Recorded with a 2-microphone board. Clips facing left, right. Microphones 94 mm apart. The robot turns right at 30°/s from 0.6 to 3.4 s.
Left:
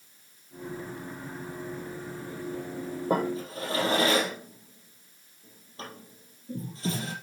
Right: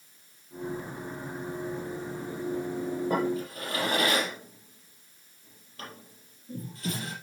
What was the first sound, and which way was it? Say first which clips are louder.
A drawer: left 3 dB; 40° left (ahead or behind).